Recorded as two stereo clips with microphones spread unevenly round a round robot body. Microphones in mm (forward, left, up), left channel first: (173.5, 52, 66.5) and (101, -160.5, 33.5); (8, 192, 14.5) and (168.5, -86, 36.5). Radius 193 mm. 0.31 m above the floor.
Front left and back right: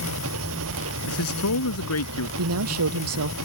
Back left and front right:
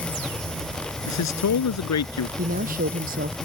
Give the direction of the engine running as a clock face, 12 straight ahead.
5 o'clock.